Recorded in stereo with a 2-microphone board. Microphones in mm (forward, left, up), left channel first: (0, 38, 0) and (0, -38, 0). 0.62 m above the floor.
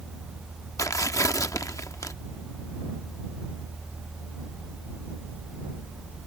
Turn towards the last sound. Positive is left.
turn(degrees=45)  # may be behind; listen again after turning